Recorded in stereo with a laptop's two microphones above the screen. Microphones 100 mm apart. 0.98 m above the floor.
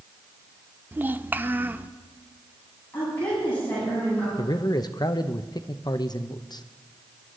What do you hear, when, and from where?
0.9 s a child speaking: 20° right (ahead or behind), 0.7 m
2.9 s a woman speaking: 20° left (ahead or behind), 9 m
4.4 s a man speaking: 45° left (ahead or behind), 0.7 m